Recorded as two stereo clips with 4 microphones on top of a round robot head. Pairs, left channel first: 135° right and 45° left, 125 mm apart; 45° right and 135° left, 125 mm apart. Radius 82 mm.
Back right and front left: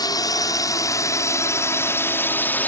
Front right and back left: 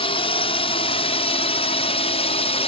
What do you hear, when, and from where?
0.0 s a drone: 80° right; by 2.7 s 65° right